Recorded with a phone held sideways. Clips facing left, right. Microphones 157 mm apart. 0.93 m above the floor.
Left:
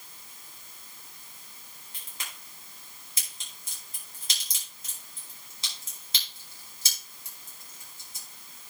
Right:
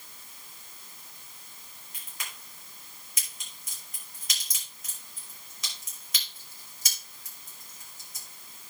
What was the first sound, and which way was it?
A crack, 30° left (ahead or behind).